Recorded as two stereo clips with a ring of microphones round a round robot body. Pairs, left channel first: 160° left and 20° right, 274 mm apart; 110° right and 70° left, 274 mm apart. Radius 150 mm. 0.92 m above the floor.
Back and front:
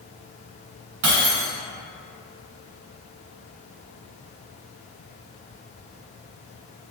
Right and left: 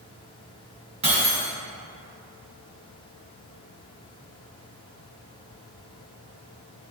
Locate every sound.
1.0 s breaking glass: straight ahead, 1.4 m